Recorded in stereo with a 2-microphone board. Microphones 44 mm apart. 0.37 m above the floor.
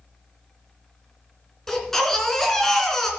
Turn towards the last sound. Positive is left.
turn(degrees=10)  # may be behind; listen again after turning